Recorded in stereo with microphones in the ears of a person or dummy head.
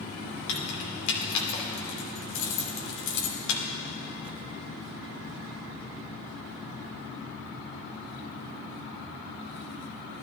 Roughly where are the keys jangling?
Left.